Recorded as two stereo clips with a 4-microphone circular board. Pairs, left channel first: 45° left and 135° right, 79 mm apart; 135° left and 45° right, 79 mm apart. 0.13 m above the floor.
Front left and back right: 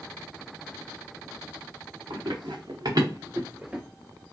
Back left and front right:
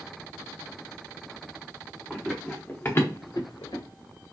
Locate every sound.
2.1 s running footsteps: 130° right, 1.6 m; by 3.8 s 140° left, 1.1 m